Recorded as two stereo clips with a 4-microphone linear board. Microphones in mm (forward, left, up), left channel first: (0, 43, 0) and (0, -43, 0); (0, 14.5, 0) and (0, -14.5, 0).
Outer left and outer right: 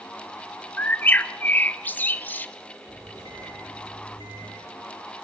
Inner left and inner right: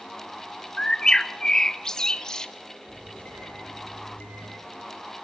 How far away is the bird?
About 0.7 m.